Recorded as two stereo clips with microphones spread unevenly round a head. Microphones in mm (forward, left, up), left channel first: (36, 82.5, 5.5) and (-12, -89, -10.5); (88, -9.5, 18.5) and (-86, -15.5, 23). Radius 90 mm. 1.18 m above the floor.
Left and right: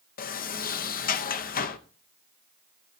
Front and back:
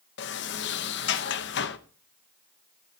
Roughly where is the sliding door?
Ahead left.